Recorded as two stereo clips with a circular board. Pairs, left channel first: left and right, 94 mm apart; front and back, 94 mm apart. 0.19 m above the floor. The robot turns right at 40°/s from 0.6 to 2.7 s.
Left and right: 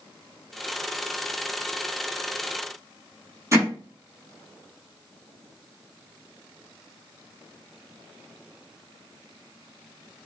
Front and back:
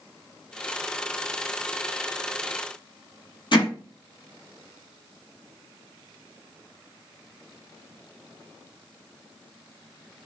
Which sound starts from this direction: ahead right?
Hammering, at 3.5 s.